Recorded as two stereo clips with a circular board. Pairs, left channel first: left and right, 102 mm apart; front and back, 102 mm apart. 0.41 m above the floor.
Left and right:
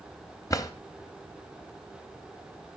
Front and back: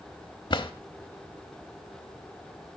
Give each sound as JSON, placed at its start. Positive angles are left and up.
{"t": 0.5, "sound": "a drawer", "azimuth_deg": 35, "distance_m": 0.9}